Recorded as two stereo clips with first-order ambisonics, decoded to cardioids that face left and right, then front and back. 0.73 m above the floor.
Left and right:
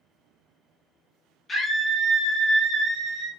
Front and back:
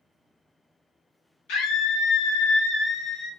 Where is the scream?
20° left, 1.3 m; by 3.3 s 70° right, 0.9 m.